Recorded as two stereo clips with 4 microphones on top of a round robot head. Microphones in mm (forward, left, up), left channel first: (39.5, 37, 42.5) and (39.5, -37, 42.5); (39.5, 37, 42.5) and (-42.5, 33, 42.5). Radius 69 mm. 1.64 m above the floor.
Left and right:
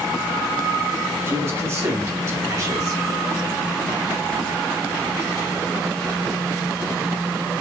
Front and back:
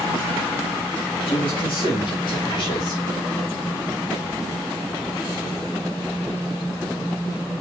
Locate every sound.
1.3 s a man speaking: 40° right, 3.5 m; by 3.0 s 55° right, 3.5 m